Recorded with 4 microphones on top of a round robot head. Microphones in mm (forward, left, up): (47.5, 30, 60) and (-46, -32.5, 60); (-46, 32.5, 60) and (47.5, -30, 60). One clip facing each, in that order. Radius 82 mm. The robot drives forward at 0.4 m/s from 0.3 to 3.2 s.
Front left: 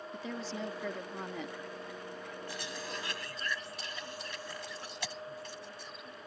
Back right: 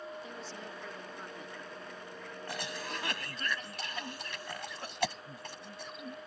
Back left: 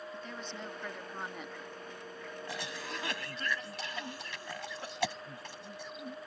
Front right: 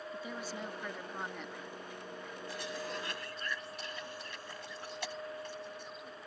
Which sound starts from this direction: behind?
A cough, at 2.5 s.